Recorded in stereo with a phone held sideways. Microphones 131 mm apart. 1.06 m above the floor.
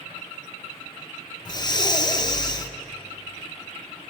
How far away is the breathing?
About 0.5 m.